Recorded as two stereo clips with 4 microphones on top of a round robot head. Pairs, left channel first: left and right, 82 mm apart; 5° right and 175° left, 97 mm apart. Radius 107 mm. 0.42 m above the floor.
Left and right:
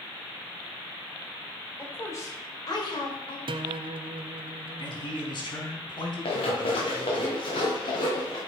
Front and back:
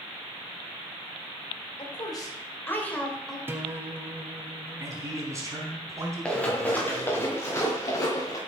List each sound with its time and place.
1.8 s a woman speaking: 25° left, 2.5 m; by 3.4 s 85° left, 3 m
3.5 s a guitar: 110° right, 0.7 m
4.8 s a man speaking: 120° left, 4 m
6.2 s running footsteps: 75° left, 3 m; by 8.4 s 45° left, 3 m